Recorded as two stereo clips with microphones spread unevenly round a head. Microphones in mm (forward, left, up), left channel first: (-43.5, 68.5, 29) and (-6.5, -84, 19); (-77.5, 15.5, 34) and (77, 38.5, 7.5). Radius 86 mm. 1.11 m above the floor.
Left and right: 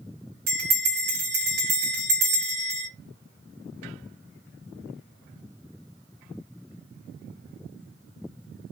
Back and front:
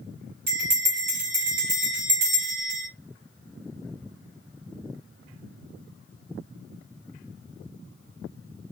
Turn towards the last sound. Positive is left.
turn(degrees=-55)